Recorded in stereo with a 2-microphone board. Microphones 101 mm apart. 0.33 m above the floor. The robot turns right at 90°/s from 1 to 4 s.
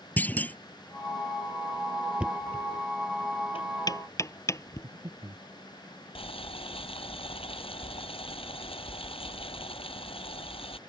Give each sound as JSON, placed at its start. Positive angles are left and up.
{"t": 0.2, "sound": "a clunk", "side_deg": 15}
{"t": 2.2, "sound": "knocking", "side_deg": -15}
{"t": 4.8, "sound": "breathing", "side_deg": -55}
{"t": 6.2, "sound": "boiling", "side_deg": 70}